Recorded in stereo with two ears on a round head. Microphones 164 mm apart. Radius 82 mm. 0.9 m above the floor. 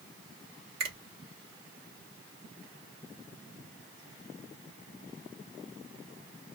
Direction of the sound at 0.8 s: 55° right (ahead or behind).